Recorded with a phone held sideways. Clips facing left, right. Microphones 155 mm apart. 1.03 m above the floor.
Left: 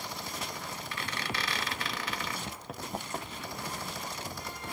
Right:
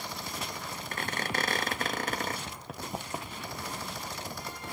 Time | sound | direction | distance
0.9 | a squeak | 45° right (ahead or behind) | 0.8 m
2.5 | running footsteps | 10° left (ahead or behind) | 1.1 m